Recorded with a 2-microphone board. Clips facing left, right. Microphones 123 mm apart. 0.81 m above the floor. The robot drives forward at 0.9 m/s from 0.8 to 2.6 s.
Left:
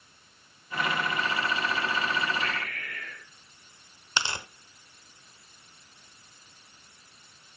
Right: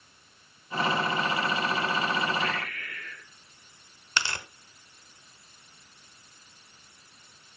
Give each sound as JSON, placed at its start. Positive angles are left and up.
{"t": 2.4, "sound": "breathing", "side_deg": 65, "distance_m": 2.5}
{"t": 4.2, "sound": "tearing paper", "side_deg": 15, "distance_m": 0.7}